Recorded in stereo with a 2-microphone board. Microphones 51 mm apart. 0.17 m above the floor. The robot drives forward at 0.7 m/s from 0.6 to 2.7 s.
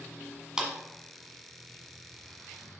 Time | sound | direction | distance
0.6 | a clap | 15° right (ahead or behind) | 1.5 m